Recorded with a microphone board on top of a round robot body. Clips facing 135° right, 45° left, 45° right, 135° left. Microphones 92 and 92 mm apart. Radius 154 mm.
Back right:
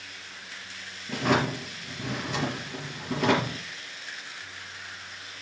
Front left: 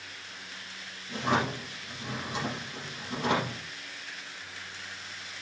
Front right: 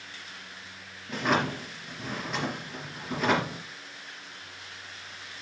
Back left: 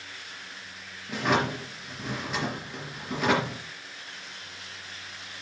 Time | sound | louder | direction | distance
1.1 | a drawer | back right 3 dB, back left 1 dB | 140° right | 4 m